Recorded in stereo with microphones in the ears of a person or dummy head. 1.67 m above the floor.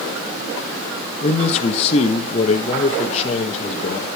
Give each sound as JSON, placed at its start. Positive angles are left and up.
{"t": 1.2, "sound": "a man speaking", "side_deg": 35, "distance_m": 1.5}